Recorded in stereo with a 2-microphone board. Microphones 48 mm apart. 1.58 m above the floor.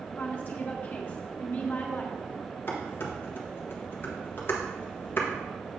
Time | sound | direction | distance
0.2 | a woman speaking | 40° left (ahead or behind) | 1.5 m
2.7 | dishes clattering | 45° left (ahead or behind) | 1.2 m